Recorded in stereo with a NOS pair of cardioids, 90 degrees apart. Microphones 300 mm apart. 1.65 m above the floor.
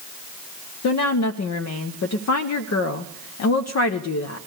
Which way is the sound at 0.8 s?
60° left.